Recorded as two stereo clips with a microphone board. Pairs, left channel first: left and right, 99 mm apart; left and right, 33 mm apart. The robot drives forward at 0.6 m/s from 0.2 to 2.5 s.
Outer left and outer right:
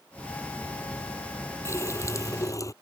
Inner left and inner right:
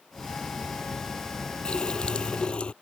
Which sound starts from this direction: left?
A running tap, at 1.6 s.